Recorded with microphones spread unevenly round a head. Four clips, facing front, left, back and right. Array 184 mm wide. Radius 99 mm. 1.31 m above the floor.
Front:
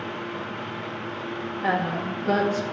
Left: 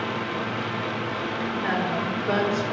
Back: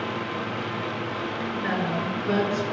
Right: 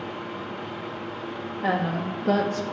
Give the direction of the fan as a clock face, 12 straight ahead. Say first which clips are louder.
Left 5 dB, back 3 dB; 8 o'clock.